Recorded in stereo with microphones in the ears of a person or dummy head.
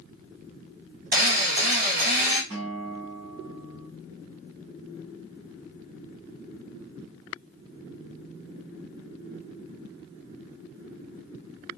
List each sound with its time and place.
1.1 s a drill: 50° right (ahead or behind), 1.6 m
2.5 s a guitar: 25° right (ahead or behind), 2.5 m